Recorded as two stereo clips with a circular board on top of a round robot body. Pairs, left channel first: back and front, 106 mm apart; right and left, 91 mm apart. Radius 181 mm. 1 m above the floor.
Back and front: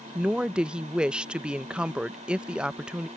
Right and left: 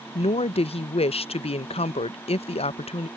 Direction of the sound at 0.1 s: 85° right.